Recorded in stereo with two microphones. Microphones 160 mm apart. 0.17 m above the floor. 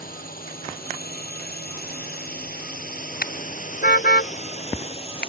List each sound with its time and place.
0.0 s a drone: 65° left (ahead or behind); by 5.3 s 35° left (ahead or behind)
3.2 s a car horn: 75° left (ahead or behind)